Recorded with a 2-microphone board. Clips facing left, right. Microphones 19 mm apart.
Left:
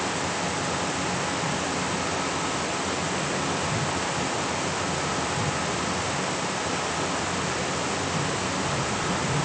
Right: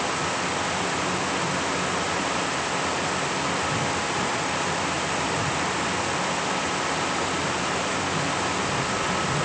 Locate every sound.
Only background noise.